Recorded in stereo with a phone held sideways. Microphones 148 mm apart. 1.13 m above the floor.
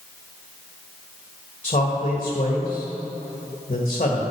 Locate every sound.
1.6 s a man speaking: 50° left (ahead or behind), 1.4 m